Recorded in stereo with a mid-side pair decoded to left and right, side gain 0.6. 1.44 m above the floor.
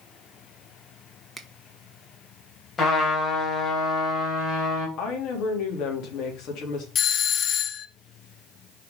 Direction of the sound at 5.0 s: 65° left.